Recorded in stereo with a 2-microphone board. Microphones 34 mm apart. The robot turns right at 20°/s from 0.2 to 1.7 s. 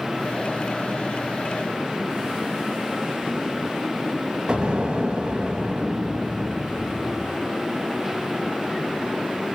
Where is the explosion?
30° right (ahead or behind), 1.7 m.